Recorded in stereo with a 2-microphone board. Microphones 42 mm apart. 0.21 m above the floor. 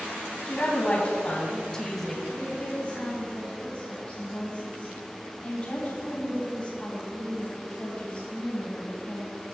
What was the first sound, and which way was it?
A woman speaking, 40° left (ahead or behind).